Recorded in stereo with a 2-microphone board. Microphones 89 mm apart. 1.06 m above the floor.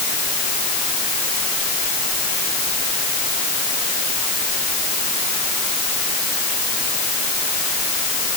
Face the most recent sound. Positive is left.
No sound to turn to.